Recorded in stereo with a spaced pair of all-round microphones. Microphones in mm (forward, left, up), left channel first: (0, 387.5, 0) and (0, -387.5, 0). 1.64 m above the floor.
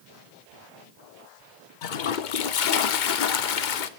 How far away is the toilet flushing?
About 0.8 m.